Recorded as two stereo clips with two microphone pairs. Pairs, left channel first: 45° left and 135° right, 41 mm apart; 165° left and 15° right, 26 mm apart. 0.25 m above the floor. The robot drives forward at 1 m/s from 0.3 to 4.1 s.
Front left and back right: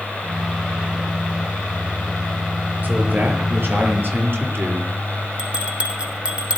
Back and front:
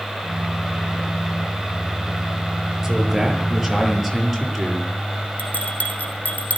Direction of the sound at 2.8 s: 90° right.